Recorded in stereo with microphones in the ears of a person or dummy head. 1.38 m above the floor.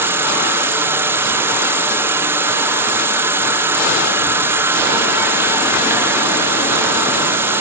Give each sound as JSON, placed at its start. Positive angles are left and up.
{"t": 0.0, "sound": "an insect", "side_deg": -20}